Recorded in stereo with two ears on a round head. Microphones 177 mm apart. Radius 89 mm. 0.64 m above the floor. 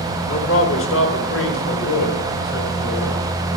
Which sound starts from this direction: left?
A man speaking, at 0.3 s.